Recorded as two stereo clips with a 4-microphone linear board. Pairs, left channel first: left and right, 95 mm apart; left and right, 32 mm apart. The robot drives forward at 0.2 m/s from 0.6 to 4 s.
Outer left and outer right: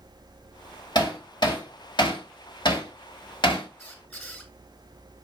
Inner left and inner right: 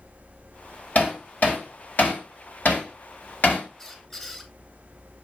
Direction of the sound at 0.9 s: 50° left (ahead or behind).